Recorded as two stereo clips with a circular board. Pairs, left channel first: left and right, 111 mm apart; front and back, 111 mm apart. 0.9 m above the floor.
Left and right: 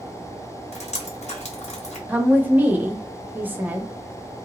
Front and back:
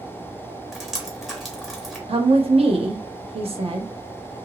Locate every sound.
0.7 s dripping: 90° left, 0.9 m
2.1 s a woman speaking: 160° right, 0.8 m